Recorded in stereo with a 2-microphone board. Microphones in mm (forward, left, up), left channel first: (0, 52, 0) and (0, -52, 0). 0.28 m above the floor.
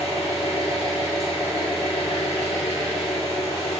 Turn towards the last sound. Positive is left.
turn(degrees=80)